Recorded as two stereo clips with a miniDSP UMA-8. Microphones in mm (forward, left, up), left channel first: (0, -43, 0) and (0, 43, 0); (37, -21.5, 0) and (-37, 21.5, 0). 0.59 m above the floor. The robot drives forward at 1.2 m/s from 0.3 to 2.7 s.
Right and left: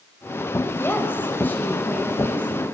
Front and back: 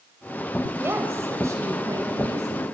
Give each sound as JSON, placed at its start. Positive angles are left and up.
{"t": 0.8, "sound": "a woman speaking", "azimuth_deg": -150, "distance_m": 2.0}